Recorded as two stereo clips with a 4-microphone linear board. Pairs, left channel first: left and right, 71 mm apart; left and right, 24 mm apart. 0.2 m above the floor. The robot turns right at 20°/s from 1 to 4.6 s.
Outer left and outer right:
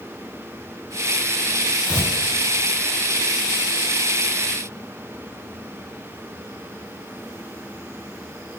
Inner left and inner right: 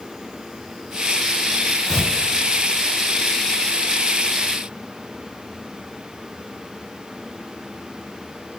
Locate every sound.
1.9 s tearing paper: 25° right (ahead or behind), 3 m; by 2.1 s 20° right (ahead or behind), 3 m